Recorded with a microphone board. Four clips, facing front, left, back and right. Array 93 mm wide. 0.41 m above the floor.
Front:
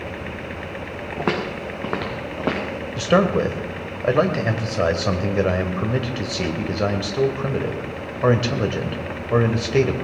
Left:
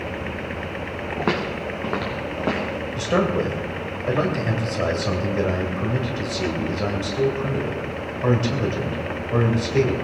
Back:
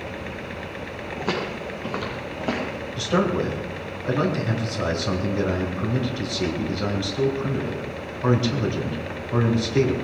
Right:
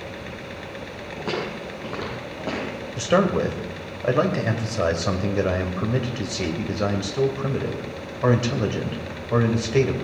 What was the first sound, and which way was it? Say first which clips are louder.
Footsteps: left 4 dB, front 3 dB; 35° left.